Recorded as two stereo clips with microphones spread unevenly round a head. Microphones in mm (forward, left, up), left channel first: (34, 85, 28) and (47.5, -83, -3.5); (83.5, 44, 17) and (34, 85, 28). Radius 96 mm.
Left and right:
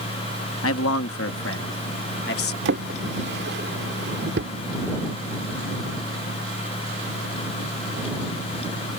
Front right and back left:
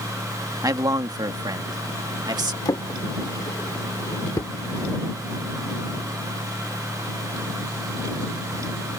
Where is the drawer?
80° right.